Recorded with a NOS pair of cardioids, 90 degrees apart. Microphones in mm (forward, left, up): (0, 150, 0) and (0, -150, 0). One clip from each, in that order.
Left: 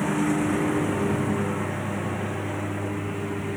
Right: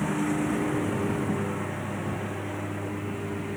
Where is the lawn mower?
25° left.